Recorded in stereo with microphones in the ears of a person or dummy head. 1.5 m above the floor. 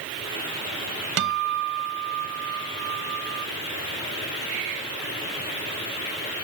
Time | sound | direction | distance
1.2 | a guitar | 70° right (ahead or behind) | ?